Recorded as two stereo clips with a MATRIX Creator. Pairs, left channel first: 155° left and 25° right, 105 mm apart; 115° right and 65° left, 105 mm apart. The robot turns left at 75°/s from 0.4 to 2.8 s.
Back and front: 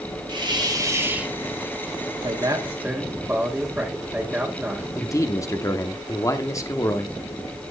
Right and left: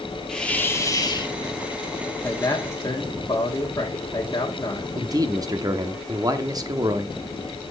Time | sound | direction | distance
0.3 | a hiss | 35° right | 1.3 m
2.2 | a man speaking | 45° right | 1.2 m
5.0 | a man speaking | 105° left | 0.8 m